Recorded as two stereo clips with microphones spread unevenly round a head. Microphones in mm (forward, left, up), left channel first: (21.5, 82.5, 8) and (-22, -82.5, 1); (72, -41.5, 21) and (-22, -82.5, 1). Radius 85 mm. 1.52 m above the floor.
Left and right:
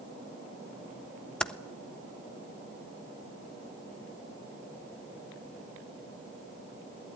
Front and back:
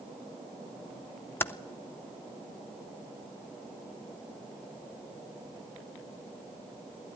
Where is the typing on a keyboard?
5° right, 0.6 m.